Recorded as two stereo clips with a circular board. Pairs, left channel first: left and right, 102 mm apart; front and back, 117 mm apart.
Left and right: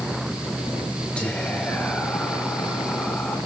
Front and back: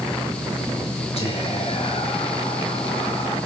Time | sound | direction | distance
1.2 | whispering | 10° left | 5 m